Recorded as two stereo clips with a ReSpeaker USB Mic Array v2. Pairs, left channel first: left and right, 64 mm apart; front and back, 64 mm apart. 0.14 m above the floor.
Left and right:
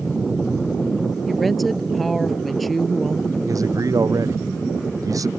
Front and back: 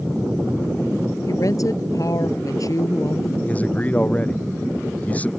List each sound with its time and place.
1.3 s a woman speaking: straight ahead
3.5 s a man speaking: 65° right